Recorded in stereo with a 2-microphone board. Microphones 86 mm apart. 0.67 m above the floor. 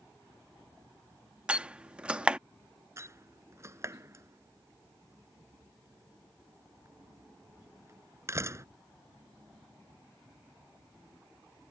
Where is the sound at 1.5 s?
15° right (ahead or behind).